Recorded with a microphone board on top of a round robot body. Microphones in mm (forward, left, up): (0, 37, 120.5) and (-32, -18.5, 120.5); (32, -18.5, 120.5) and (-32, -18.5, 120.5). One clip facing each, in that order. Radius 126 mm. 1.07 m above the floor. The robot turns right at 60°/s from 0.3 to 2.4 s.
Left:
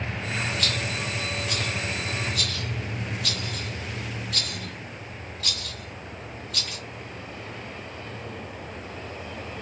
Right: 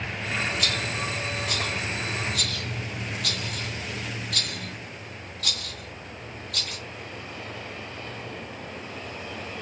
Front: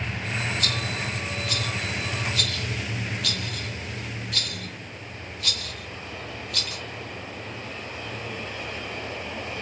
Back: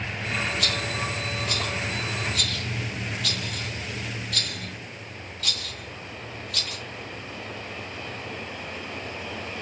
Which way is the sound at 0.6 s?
160° left.